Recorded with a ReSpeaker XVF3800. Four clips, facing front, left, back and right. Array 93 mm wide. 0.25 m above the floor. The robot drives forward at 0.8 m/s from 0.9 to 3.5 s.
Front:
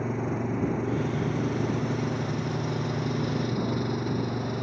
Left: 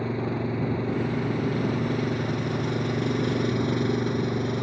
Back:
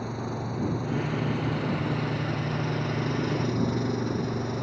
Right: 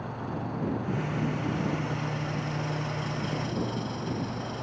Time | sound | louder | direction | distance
0.0 | an engine running | left 7 dB, front 3 dB | 60° left | ?